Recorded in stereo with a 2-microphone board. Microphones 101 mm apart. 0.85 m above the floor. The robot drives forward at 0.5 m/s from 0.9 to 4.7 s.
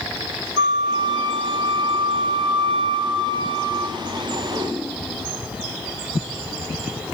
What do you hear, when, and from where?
0.6 s a flute: 60° right (ahead or behind), 3 m; by 4.0 s 85° right, 2.5 m